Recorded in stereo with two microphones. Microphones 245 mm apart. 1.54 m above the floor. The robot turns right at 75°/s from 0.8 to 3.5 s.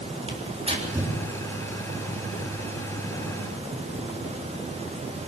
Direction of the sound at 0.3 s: 25° right (ahead or behind).